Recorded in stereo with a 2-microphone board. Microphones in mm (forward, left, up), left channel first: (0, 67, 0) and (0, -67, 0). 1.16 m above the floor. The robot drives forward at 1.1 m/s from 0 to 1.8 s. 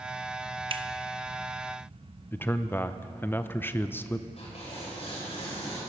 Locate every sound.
0.7 s a finger snap: 45° right (ahead or behind), 0.6 m; by 0.9 s 35° right (ahead or behind), 0.8 m
2.3 s a man speaking: 15° left (ahead or behind), 0.6 m
4.4 s tearing paper: 50° left (ahead or behind), 5.5 m